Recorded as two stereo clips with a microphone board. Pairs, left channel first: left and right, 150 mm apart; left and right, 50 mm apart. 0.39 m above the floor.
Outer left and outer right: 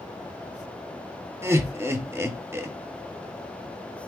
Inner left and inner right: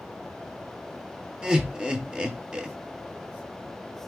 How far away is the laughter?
About 0.8 m.